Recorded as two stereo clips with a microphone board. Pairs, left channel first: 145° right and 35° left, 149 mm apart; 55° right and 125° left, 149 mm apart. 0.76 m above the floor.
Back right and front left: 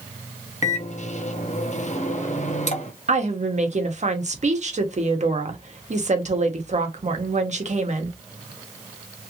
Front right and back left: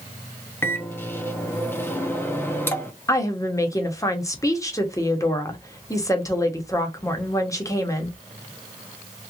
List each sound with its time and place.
0.6 s a microwave: 130° right, 1.0 m
3.1 s a woman speaking: 10° left, 1.2 m